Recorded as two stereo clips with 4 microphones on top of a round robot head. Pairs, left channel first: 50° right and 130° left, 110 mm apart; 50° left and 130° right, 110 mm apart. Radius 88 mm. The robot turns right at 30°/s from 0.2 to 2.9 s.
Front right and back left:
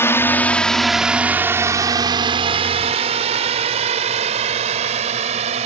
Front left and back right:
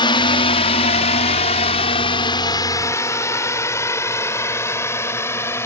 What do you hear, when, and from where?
0.0 s a drone: 15° left; by 5.7 s 115° left